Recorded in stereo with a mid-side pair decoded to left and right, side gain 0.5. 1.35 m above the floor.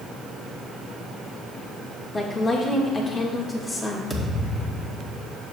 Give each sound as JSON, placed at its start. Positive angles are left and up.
{"t": 2.1, "sound": "a woman speaking", "azimuth_deg": 30, "distance_m": 1.5}
{"t": 4.1, "sound": "a thud", "azimuth_deg": 15, "distance_m": 2.0}